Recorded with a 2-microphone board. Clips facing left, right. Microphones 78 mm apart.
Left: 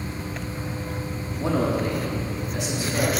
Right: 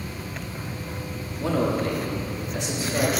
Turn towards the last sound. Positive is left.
turn(degrees=0)  # may be behind; listen again after turning